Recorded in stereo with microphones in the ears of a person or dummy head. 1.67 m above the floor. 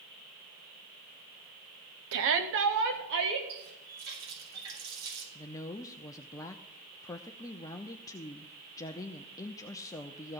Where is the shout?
70° right (ahead or behind), 0.8 m; by 3.4 s 60° right (ahead or behind), 1.6 m.